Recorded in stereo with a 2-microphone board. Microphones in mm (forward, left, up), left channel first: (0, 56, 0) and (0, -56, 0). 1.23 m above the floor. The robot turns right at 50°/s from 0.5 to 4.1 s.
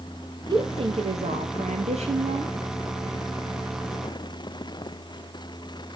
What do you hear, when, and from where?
0.5 s a woman speaking: 145° right, 1.3 m; by 2.5 s 40° right, 1.3 m